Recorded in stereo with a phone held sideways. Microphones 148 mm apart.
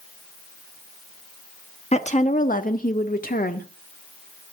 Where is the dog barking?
No dog barking in this recording.